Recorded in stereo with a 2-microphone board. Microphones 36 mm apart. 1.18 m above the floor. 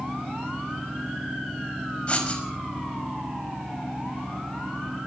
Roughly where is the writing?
Left.